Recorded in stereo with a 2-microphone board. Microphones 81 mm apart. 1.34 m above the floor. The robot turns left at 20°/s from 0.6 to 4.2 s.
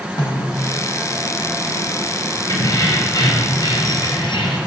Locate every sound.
0.2 s a snare drum: 55° left (ahead or behind), 5 m
2.5 s keys jangling: 125° left, 4.5 m; by 4.6 s 90° left, 4.5 m